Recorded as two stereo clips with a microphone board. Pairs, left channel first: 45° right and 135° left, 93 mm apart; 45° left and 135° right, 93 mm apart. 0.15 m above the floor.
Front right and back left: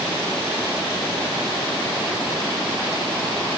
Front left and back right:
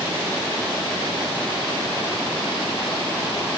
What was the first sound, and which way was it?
Only background noise.